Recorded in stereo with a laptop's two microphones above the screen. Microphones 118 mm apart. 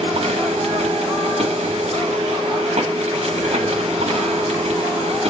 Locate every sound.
0.0 s a machine running: 60° right (ahead or behind), 0.9 m